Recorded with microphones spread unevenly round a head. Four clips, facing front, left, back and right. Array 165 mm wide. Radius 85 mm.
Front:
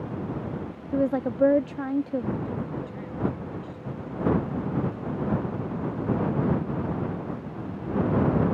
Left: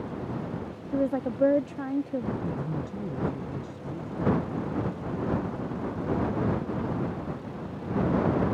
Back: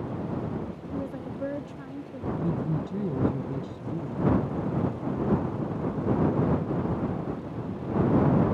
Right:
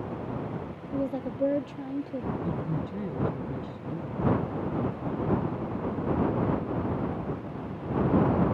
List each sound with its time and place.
0.9 s a woman speaking: 20° left
2.4 s a woman speaking: 175° right